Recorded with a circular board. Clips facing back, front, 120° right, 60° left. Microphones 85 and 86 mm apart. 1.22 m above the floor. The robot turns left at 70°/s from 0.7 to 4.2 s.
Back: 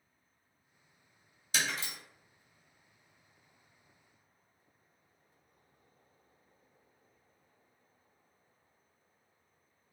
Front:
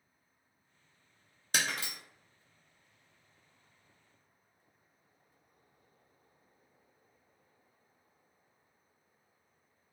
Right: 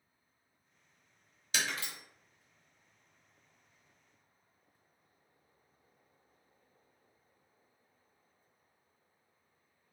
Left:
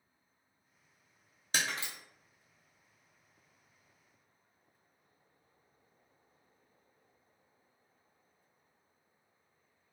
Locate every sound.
1.5 s breaking glass: 20° left, 0.7 m; by 1.9 s 10° right, 0.7 m